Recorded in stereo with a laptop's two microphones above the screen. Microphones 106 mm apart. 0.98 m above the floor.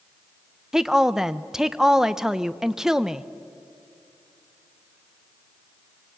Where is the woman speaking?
5° right (ahead or behind), 0.7 m.